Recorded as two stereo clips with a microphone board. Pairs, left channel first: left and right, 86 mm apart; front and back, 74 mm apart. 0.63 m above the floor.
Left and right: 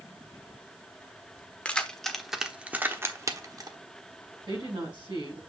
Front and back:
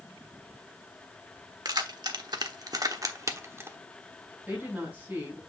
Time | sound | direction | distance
1.6 | keys jangling | 165° left | 1.2 m
4.5 | a woman speaking | 115° right | 5.5 m